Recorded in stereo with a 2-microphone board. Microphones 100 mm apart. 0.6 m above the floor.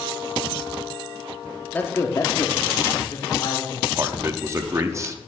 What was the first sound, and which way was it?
A man speaking, 20° left (ahead or behind).